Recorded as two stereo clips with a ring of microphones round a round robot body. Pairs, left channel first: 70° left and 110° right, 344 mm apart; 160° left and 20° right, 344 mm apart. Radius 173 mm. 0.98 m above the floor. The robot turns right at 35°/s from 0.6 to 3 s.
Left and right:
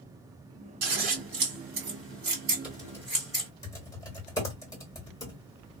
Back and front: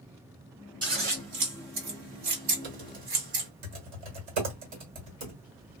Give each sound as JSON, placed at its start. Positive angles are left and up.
{"t": 0.8, "sound": "scissors", "azimuth_deg": -100, "distance_m": 1.7}
{"t": 2.6, "sound": "typing on a keyboard", "azimuth_deg": -25, "distance_m": 1.8}